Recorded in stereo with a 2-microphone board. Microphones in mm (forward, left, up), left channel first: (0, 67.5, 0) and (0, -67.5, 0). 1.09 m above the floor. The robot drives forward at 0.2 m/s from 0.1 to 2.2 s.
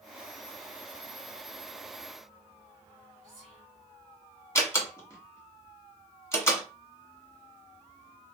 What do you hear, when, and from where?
3.2 s whispering: 5° left (ahead or behind), 2.5 m
4.5 s a door slam: 20° left (ahead or behind), 1.4 m